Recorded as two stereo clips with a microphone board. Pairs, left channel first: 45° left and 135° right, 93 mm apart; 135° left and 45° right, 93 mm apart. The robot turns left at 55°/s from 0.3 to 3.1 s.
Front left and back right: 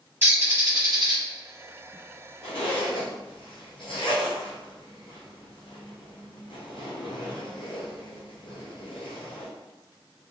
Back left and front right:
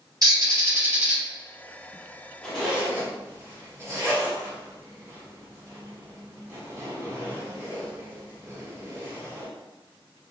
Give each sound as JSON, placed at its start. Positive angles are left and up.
{"t": 0.2, "sound": "a bird", "azimuth_deg": -75, "distance_m": 1.0}
{"t": 2.4, "sound": "a zipper", "azimuth_deg": 55, "distance_m": 0.9}